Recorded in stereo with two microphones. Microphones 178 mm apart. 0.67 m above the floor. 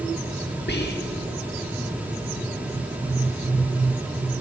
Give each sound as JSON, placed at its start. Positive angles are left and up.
{"t": 0.7, "sound": "whispering", "side_deg": 60, "distance_m": 1.3}